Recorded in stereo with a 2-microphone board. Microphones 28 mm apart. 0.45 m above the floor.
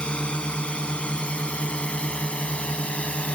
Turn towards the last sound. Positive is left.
turn(degrees=45)  # may be behind; listen again after turning